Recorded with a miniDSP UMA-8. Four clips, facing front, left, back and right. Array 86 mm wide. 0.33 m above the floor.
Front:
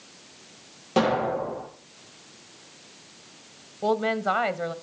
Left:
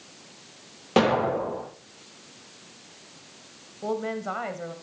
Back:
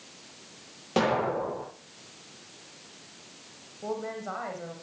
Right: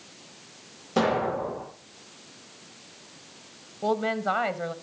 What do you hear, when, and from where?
1.0 s an explosion: 90° left, 8 m
3.8 s a woman speaking: 20° right, 1.3 m